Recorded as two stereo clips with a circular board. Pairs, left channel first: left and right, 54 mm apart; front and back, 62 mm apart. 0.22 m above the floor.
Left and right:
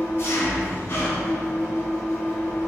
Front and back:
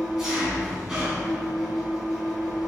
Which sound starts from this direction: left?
An engine running, at 0.0 s.